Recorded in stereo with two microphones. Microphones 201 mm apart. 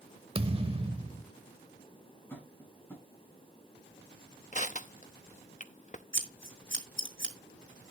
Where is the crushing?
40° left (ahead or behind), 0.7 m.